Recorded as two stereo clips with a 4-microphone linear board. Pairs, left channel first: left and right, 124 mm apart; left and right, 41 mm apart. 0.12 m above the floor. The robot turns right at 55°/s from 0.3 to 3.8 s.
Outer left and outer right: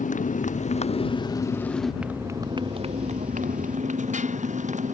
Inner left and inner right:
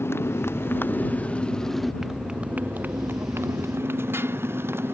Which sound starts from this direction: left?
A motorcycle, at 0.0 s.